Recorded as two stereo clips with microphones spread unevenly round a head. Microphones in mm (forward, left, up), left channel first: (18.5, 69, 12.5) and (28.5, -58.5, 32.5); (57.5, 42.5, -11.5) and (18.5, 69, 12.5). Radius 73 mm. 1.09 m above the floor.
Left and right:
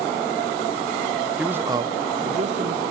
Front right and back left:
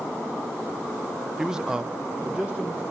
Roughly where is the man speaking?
Ahead.